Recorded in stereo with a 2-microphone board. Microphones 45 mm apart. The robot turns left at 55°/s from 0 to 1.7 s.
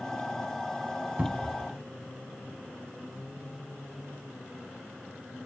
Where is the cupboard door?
30° right (ahead or behind), 0.5 m; by 1.7 s 20° right (ahead or behind), 0.5 m.